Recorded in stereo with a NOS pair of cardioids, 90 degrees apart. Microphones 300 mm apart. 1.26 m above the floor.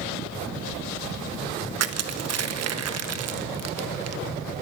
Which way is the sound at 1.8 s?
55° right.